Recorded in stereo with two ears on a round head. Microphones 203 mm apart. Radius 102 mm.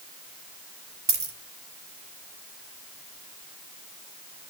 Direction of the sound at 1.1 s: 15° right (ahead or behind).